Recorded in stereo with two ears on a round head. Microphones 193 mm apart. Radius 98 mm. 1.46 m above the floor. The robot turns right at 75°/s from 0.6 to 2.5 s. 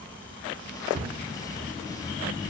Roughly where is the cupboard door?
Right.